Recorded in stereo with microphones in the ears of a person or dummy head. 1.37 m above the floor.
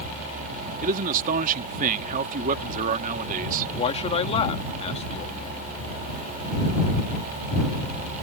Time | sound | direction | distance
0.8 | a man speaking | 45° right (ahead or behind) | ?
3.8 | a man speaking | 30° left (ahead or behind) | ?